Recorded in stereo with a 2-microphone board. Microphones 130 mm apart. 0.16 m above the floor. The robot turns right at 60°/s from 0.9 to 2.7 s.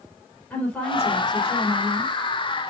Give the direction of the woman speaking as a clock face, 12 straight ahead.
12 o'clock.